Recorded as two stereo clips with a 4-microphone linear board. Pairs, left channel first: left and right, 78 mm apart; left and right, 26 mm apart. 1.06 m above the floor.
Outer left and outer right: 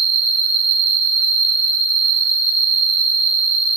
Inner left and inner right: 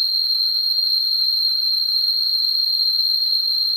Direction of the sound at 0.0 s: 20° left (ahead or behind).